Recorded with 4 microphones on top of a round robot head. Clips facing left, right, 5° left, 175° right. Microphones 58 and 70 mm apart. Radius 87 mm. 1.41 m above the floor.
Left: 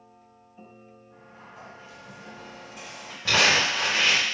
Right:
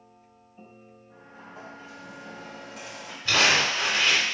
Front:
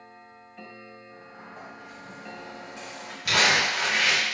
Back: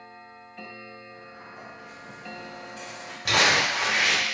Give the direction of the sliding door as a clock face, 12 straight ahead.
2 o'clock.